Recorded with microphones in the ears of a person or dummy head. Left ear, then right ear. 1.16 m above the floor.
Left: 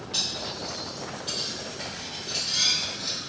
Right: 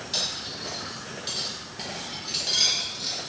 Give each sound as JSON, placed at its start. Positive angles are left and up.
{"t": 0.1, "sound": "cutlery clinking", "side_deg": -40, "distance_m": 1.0}